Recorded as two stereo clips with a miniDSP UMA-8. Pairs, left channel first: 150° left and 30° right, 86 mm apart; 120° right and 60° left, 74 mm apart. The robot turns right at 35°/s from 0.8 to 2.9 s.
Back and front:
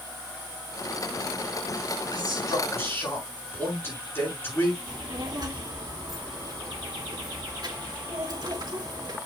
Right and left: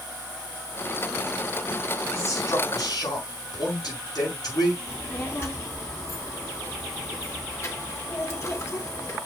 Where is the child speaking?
65° right, 2 m.